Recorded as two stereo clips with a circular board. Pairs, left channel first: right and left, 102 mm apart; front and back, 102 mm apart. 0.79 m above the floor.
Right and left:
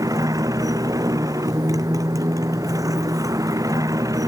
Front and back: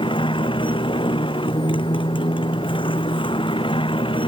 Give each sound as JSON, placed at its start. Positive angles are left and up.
{"t": 0.0, "sound": "a motorcycle", "azimuth_deg": 35}